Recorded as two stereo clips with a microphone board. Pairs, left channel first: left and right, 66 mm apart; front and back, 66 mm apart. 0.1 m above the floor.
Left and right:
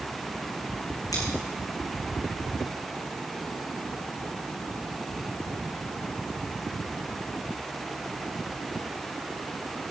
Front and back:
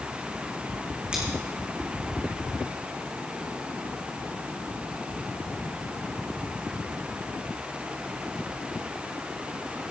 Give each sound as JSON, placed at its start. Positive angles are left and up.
{"t": 1.1, "sound": "scissors", "azimuth_deg": 105, "distance_m": 5.0}